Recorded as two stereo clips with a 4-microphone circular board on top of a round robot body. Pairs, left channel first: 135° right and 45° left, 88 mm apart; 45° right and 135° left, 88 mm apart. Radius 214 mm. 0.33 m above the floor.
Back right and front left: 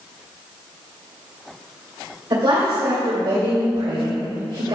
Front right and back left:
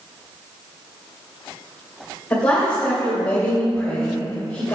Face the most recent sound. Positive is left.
turn(degrees=30)